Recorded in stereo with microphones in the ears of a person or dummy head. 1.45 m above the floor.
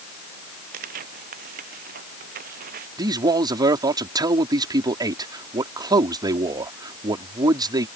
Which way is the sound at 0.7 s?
50° right (ahead or behind).